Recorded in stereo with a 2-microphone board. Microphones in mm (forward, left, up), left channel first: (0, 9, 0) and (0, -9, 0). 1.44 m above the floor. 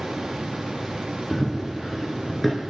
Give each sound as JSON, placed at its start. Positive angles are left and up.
{"t": 1.3, "sound": "running footsteps", "side_deg": 0, "distance_m": 3.0}